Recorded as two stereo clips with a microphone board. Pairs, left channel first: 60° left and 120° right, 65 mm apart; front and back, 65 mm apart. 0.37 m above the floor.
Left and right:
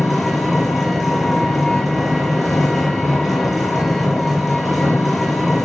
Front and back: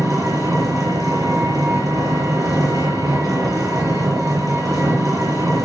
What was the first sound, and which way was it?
An engine running, 150° left.